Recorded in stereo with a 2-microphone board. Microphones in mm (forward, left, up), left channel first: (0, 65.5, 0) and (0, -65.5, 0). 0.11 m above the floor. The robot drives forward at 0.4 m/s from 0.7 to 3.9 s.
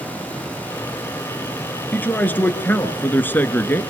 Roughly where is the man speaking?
Centre.